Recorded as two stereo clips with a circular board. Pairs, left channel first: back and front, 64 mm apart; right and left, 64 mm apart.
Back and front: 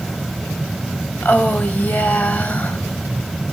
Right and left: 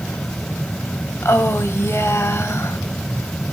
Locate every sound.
1.2 s a woman speaking: 125° right, 2 m